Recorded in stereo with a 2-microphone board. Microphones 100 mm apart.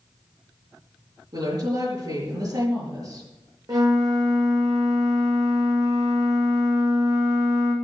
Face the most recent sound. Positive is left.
turn(degrees=-45)  # may be behind; listen again after turning